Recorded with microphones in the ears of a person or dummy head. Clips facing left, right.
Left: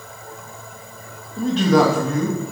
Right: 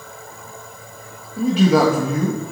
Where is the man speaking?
5° right (ahead or behind), 1.2 m.